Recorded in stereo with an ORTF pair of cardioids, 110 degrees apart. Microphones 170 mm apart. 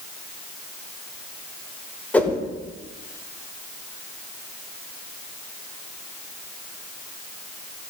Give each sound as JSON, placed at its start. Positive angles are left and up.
{"t": 2.1, "sound": "a whoosh", "azimuth_deg": 10, "distance_m": 1.6}